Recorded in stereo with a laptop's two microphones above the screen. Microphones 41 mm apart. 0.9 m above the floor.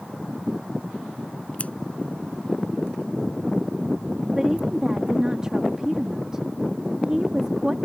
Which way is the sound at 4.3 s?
20° right (ahead or behind).